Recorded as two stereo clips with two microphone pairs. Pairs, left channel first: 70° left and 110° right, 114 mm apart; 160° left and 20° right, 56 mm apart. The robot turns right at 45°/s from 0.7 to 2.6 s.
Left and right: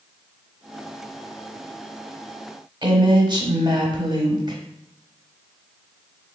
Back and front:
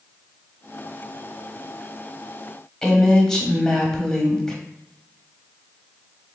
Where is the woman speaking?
120° right, 1.1 m.